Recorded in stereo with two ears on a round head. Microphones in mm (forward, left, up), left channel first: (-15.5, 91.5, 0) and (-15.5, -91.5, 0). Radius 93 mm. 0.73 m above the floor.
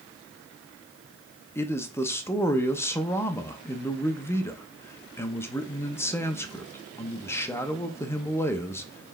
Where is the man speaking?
10° left (ahead or behind), 0.7 m.